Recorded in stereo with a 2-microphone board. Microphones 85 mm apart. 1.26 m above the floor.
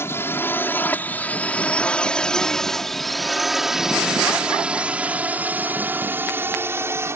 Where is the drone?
25° left (ahead or behind); by 7.2 s 30° right (ahead or behind).